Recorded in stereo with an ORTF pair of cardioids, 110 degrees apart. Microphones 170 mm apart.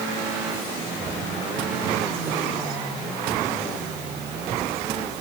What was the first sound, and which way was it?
Only background noise.